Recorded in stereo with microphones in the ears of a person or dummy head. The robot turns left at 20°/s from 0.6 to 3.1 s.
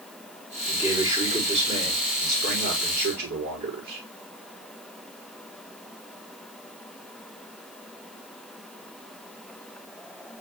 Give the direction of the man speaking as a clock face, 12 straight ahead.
12 o'clock.